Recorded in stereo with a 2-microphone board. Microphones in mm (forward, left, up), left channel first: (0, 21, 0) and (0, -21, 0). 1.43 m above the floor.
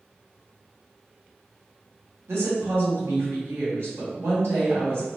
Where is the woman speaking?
75° right (ahead or behind), 1.9 m.